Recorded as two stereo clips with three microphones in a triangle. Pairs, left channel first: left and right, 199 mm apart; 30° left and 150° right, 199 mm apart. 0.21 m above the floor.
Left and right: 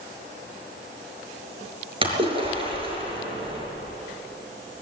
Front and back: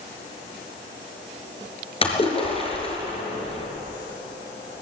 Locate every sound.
2.0 s a splash: 30° right, 4 m